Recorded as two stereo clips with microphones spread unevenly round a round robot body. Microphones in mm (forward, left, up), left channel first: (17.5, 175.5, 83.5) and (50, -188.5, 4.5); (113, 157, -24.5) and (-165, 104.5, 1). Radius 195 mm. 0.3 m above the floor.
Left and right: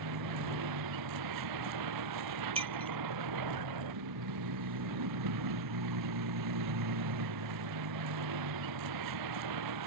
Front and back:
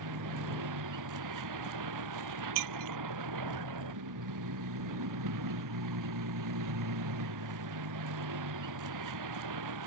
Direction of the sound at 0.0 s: 125° right.